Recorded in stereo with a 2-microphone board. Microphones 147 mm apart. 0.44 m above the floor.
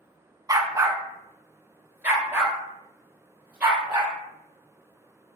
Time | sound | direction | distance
0.5 | a dog barking | 25° right (ahead or behind) | 0.8 m